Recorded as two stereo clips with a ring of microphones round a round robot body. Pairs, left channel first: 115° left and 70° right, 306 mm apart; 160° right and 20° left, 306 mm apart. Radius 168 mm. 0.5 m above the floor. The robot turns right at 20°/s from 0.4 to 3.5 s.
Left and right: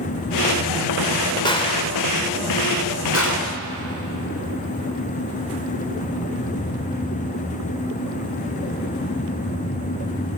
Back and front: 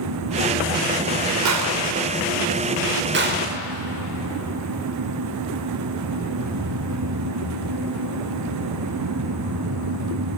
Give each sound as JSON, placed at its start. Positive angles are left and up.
{"t": 1.4, "sound": "a gunshot", "azimuth_deg": 40, "distance_m": 2.5}